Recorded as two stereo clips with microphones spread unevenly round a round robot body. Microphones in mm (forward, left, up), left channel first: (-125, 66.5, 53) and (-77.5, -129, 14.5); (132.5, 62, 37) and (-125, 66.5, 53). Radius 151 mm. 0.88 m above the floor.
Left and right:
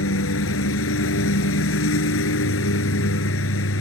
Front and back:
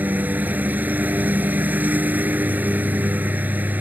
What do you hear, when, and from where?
0.0 s a lawn mower: 95° left